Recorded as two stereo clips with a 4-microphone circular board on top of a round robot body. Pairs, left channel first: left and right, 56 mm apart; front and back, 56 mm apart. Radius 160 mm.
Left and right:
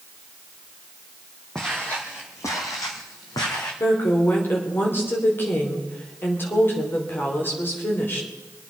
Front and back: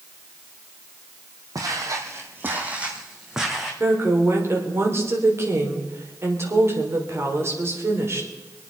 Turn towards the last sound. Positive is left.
turn(degrees=140)